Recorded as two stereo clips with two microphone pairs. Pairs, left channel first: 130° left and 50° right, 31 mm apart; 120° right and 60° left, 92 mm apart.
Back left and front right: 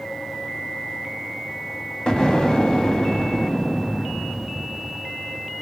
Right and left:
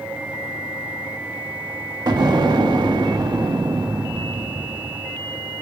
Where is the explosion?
75° left, 0.8 m.